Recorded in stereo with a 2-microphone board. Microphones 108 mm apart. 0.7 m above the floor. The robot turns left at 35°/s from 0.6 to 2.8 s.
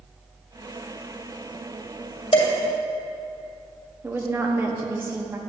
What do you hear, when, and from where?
2.3 s dishes clattering: 70° left (ahead or behind), 1.9 m; by 2.5 s 75° left (ahead or behind), 1.9 m
4.0 s a woman speaking: 20° right (ahead or behind), 0.8 m